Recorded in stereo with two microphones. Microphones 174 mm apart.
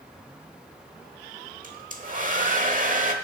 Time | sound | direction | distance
1.6 | a hair dryer | 50° right (ahead or behind) | 1.2 m